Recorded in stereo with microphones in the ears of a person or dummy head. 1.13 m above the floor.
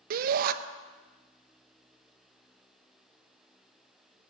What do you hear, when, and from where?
0.1 s a shout: 50° right (ahead or behind), 0.8 m